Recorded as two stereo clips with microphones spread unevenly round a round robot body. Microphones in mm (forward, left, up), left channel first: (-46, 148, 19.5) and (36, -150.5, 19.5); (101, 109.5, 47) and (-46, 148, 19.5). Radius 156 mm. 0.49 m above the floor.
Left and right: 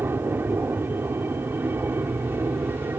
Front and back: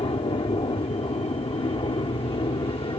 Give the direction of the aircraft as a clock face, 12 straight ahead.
12 o'clock.